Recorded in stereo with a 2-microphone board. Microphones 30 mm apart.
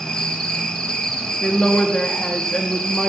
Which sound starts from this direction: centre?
A woman speaking, at 1.4 s.